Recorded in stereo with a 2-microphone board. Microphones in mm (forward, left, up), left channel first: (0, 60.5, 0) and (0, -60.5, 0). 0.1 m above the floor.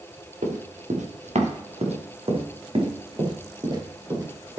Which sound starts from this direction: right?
Running footsteps, at 0.4 s.